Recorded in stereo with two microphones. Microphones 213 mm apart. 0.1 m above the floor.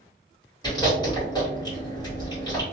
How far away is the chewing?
About 1.5 m.